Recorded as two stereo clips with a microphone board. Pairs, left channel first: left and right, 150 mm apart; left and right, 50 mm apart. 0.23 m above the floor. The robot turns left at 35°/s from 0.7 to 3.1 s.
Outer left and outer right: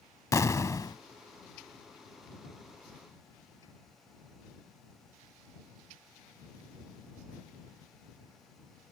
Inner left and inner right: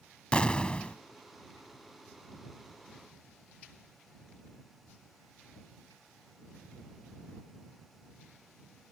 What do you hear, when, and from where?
0.3 s an explosion: 20° left (ahead or behind); by 1.0 s 30° left (ahead or behind)